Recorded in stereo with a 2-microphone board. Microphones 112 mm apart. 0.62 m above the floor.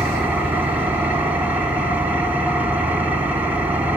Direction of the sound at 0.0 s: 15° right (ahead or behind).